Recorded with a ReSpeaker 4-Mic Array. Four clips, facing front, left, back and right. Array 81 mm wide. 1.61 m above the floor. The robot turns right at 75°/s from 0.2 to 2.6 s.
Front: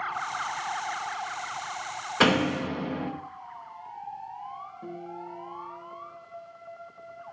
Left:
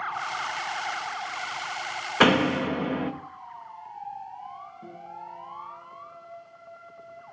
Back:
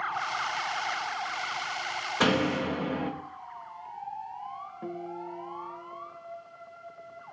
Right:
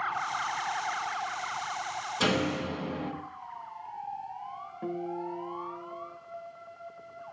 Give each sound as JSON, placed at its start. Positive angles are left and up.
{"t": 2.2, "sound": "a door slam", "azimuth_deg": 75, "distance_m": 2.0}
{"t": 4.8, "sound": "a guitar", "azimuth_deg": -125, "distance_m": 2.5}